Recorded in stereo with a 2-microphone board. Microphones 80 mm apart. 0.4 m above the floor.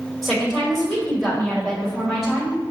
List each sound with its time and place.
0.2 s a woman speaking: 5° left (ahead or behind), 1.9 m